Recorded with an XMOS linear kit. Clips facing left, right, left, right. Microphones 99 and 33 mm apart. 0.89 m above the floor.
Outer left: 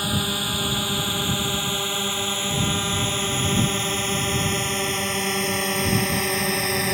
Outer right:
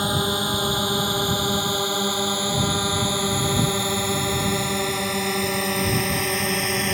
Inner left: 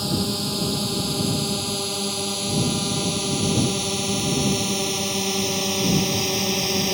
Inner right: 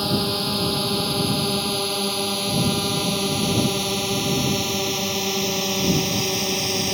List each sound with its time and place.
0.0 s a drone: 20° right (ahead or behind); by 6.9 s centre (ahead or behind)